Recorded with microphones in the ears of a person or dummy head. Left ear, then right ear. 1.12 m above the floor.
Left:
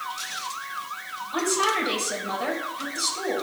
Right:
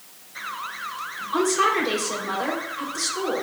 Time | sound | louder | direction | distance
1.3 | a woman speaking | right 3 dB | 70° right (ahead or behind) | 3.5 m